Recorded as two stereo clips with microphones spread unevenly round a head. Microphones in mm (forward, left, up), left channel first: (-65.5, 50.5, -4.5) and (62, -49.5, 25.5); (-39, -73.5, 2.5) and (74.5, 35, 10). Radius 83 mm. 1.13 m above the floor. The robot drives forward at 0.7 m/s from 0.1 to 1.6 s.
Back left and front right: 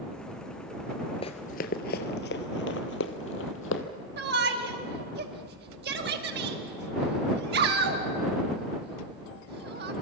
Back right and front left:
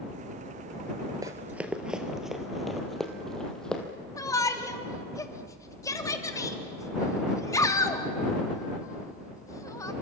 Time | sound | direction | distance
1.2 | running footsteps | 90° left | 1.3 m
4.2 | a shout | 70° right | 2.5 m